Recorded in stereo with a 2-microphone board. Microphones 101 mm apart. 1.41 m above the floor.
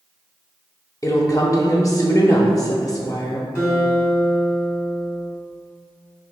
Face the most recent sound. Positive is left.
turn(degrees=25)  # may be behind; listen again after turning